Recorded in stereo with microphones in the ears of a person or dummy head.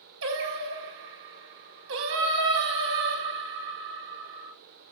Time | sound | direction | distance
0.2 | singing | 55° right (ahead or behind) | 1.3 m